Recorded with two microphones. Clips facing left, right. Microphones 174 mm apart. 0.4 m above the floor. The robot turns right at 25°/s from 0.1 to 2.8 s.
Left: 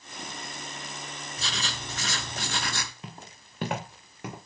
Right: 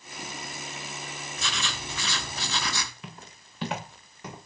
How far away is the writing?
About 1.0 m.